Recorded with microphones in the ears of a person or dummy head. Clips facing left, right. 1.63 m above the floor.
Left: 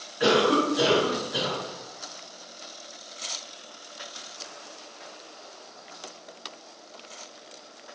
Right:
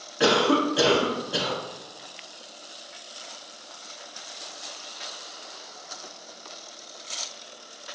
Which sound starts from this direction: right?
A cough, at 0.2 s.